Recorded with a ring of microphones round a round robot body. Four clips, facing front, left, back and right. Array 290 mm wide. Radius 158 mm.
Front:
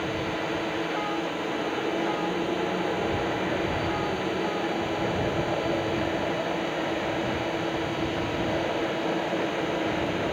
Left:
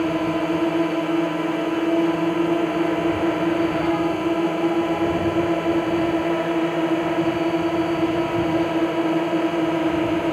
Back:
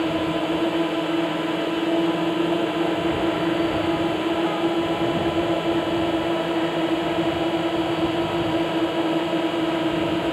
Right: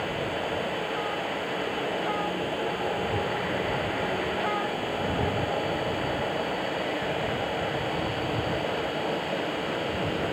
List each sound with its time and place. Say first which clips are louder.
0.0 s a drone: left 9 dB, back 7 dB; 120° left